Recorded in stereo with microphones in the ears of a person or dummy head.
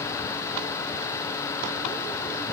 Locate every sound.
Only background noise.